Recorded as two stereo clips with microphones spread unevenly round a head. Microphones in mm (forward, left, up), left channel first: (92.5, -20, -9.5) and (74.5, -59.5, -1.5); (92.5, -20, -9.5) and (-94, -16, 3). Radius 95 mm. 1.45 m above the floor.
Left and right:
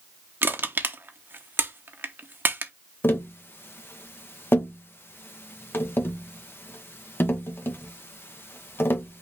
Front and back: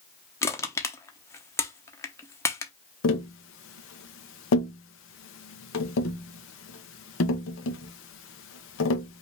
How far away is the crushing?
About 0.9 m.